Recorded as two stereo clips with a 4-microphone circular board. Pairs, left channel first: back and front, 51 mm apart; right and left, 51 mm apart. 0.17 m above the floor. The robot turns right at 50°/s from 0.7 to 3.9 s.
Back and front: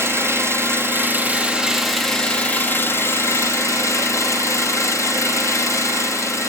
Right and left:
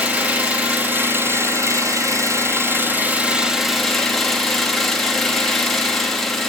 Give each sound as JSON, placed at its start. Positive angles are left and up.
{"t": 0.0, "sound": "an engine running", "azimuth_deg": 30, "distance_m": 1.8}